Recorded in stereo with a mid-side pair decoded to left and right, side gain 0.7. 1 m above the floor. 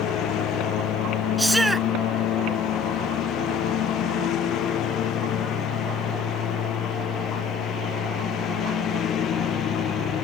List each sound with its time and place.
0.0 s a lawn mower: 55° left; by 10.2 s 45° left
1.4 s a shout: 5° right